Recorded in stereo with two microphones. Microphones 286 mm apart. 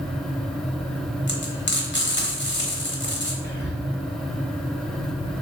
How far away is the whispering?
About 0.7 m.